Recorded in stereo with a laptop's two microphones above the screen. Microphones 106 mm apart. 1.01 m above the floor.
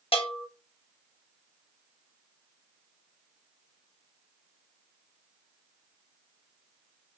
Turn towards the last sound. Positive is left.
turn(degrees=60)  # may be behind; listen again after turning